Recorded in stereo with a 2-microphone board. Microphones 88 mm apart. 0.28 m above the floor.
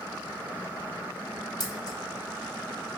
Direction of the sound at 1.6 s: 50° left (ahead or behind).